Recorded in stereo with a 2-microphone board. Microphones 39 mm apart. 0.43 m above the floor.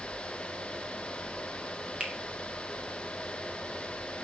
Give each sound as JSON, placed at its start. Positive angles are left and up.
{"t": 2.0, "sound": "a finger snap", "side_deg": -25, "distance_m": 0.7}